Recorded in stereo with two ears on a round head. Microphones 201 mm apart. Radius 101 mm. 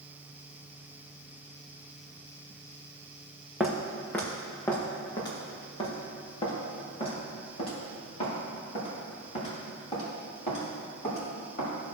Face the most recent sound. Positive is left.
turn(degrees=30)  # may be behind; listen again after turning